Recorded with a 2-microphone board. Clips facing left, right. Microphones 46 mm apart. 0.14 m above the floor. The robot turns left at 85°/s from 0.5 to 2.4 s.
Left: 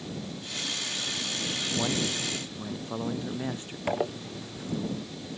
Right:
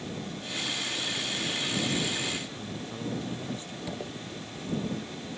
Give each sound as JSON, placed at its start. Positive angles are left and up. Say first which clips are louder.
{"t": 1.8, "sound": "a man speaking", "louder": "left 2 dB", "azimuth_deg": 95}
{"t": 3.9, "sound": "a zipper", "louder": "left 11 dB", "side_deg": 55}